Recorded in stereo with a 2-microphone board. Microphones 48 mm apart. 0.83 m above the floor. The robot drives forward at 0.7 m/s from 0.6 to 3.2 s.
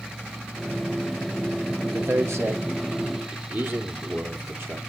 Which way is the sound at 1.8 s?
70° right (ahead or behind).